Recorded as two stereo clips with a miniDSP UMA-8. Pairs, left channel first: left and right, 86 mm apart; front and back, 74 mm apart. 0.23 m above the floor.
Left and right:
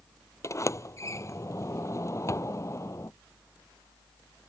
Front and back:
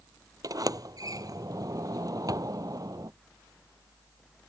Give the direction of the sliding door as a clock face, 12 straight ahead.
7 o'clock.